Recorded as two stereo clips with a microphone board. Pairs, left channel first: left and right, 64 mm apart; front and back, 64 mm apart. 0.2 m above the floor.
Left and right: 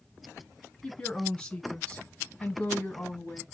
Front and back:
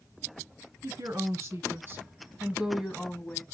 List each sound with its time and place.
0.8 s a woman speaking: 165° left, 2.5 m; by 3.4 s 45° left, 1.3 m